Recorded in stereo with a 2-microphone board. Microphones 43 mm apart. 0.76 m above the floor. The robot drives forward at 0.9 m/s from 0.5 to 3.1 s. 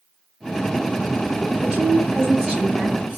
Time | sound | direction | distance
1.6 | a woman speaking | 20° right (ahead or behind) | 4 m